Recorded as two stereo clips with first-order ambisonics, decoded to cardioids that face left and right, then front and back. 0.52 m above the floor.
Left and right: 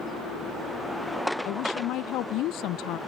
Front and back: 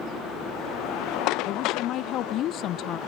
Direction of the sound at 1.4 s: 50° left.